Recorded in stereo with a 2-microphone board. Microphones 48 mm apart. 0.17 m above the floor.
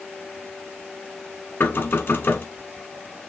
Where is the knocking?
45° left (ahead or behind), 1.5 m.